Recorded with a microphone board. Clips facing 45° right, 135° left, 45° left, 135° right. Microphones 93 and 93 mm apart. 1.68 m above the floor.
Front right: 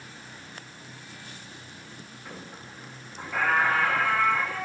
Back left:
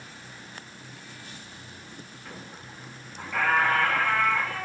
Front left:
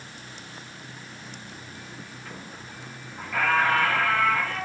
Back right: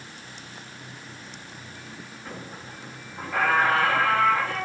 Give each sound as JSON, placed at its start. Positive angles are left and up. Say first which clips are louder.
{"t": 2.2, "sound": "a squeak", "louder": "front right 2 dB, back right 5 dB", "azimuth_deg": -110, "distance_m": 1.1}